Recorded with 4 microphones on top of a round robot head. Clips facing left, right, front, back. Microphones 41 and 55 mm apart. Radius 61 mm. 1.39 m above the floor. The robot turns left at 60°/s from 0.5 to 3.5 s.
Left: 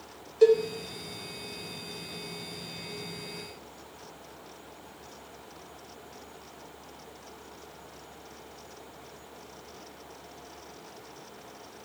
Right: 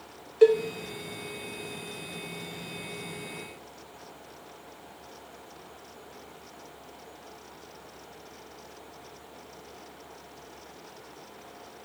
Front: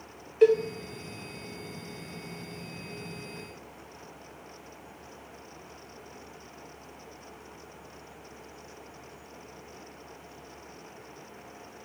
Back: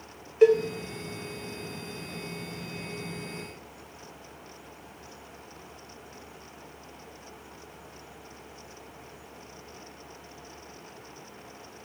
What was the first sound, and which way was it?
A cowbell, 95° right.